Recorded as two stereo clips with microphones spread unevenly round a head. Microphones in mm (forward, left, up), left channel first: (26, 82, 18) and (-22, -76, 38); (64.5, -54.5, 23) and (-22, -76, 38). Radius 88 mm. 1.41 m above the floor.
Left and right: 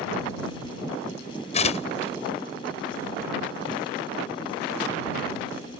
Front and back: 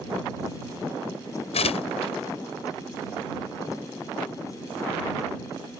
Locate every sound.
1.5 s tearing paper: 20° left